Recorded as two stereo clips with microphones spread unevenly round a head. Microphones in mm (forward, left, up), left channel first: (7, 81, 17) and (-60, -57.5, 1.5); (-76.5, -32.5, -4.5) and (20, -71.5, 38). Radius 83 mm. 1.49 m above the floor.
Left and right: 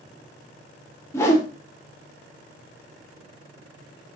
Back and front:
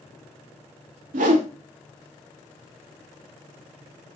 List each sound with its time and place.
1.1 s a whoosh: 10° right, 0.9 m